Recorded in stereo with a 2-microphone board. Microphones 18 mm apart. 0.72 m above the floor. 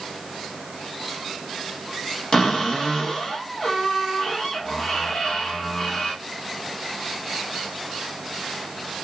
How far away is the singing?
I don't hear singing.